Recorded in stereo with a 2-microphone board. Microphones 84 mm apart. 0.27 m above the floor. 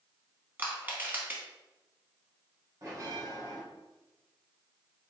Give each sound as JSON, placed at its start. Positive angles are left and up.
{"t": 0.6, "sound": "crushing", "side_deg": -20, "distance_m": 0.9}
{"t": 2.8, "sound": "a bell", "side_deg": -45, "distance_m": 1.4}